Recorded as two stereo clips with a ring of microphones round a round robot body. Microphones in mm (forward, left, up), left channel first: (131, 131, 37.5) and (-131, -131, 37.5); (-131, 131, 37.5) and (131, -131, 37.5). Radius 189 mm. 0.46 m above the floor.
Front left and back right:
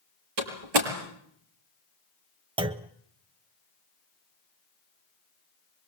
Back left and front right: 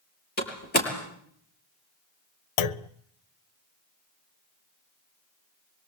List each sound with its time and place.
0.4 s a door slam: 160° right, 6.5 m
2.6 s a clunk: 145° left, 0.7 m